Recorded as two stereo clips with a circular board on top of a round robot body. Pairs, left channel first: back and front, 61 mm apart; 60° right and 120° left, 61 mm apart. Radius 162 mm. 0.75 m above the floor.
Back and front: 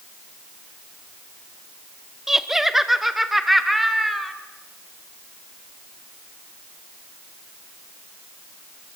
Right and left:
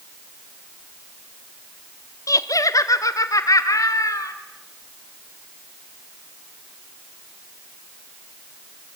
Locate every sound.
2.3 s laughter: 85° right, 1.8 m; by 4.3 s 90° right, 4 m